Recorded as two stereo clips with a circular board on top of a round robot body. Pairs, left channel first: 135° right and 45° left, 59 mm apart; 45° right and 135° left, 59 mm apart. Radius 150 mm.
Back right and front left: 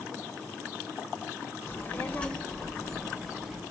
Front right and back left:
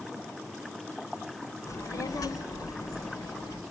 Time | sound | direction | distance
1.7 | a child speaking | 80° right | 1.4 m